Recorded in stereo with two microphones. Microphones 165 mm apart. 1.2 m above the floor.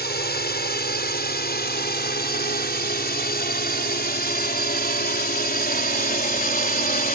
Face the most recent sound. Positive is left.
turn(degrees=65)  # may be behind; listen again after turning